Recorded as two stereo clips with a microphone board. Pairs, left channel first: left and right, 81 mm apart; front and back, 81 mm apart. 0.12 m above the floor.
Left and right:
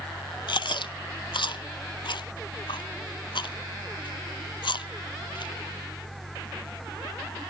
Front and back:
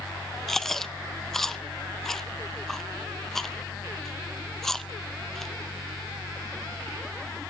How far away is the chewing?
About 0.6 m.